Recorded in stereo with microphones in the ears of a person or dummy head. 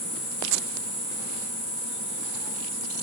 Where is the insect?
10° left (ahead or behind), 0.8 m.